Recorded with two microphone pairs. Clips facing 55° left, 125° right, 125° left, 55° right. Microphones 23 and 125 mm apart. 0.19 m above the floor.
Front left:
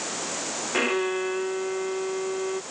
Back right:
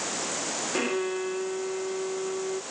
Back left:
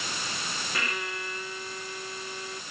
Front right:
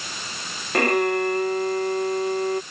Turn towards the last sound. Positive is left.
turn(degrees=-20)